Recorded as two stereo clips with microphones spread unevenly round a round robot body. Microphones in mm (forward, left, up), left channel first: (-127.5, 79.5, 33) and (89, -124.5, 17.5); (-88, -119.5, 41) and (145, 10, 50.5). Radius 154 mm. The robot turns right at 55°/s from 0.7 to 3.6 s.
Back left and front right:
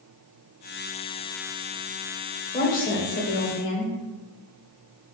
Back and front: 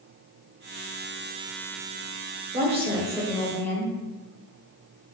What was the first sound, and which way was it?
A woman speaking, 75° left.